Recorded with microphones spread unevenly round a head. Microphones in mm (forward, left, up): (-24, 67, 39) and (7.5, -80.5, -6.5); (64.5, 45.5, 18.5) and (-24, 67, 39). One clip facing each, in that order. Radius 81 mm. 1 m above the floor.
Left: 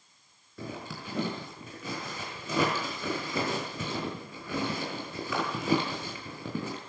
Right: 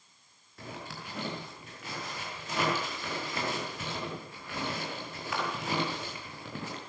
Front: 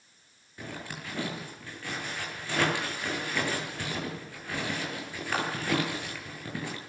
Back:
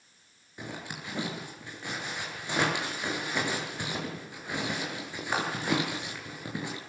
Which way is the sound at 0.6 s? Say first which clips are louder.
Left 4 dB, even; 95° left.